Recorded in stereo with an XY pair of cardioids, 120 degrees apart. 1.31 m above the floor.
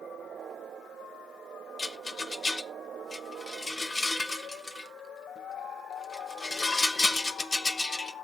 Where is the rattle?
20° left, 1.1 m.